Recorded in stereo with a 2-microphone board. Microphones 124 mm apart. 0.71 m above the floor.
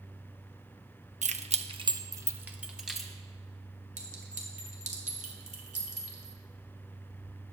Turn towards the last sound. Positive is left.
turn(degrees=-75)  # may be behind; listen again after turning